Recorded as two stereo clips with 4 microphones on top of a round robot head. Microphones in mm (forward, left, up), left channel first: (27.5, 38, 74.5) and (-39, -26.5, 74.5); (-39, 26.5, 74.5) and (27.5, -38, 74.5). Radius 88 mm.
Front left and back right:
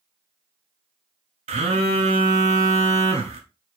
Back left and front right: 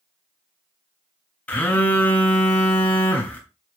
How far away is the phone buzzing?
About 0.8 m.